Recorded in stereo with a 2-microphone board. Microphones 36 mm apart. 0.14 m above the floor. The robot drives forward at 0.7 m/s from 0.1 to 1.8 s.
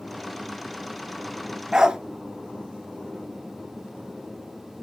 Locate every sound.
1.7 s a dog barking: 15° right (ahead or behind), 0.9 m; by 2.0 s 20° right (ahead or behind), 0.8 m